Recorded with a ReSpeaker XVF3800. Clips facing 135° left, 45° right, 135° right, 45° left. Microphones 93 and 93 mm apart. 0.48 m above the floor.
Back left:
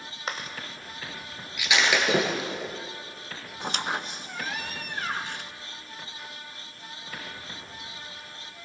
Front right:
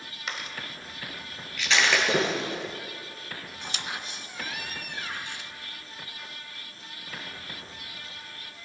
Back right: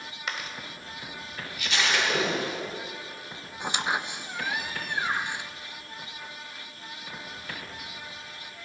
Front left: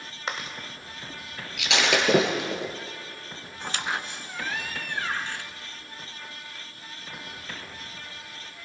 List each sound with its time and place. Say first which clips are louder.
0.3 s chewing: back left 3 dB, front left 2 dB; 95° left, 1.1 m
1.6 s breaking glass: even, front left 3 dB; 55° left, 2.5 m
3.6 s a squeak: back left 8 dB, back right 2 dB; 155° left, 0.5 m